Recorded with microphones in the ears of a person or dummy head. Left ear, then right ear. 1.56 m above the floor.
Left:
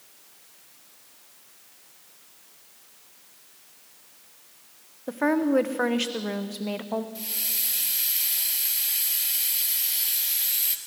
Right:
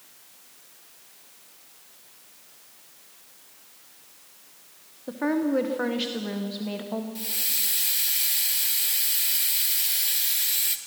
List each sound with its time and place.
5.1 s a woman speaking: 30° left (ahead or behind), 1.1 m
7.2 s a hiss: 5° right (ahead or behind), 1.0 m